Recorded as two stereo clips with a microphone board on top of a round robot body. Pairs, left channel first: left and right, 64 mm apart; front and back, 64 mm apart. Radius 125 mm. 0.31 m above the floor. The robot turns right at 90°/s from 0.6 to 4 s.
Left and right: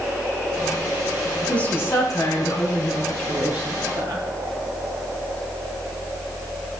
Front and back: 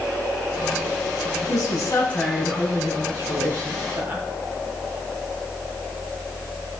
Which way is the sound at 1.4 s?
10° left.